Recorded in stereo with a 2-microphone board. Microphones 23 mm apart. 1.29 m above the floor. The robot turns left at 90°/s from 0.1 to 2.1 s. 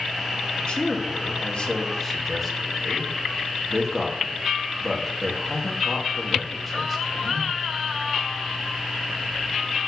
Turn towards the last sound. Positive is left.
turn(degrees=10)  # may be behind; listen again after turning